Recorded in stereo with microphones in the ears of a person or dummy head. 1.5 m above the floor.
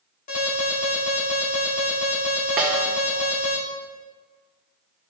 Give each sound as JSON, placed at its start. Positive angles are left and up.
{"t": 0.3, "sound": "an alarm", "side_deg": 45, "distance_m": 2.0}
{"t": 2.6, "sound": "a snare drum", "side_deg": -5, "distance_m": 0.7}